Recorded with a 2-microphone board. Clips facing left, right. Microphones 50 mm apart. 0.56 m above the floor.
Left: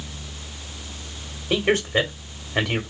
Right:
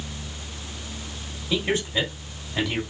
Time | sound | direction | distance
1.5 | a man speaking | 55° left (ahead or behind) | 1.7 m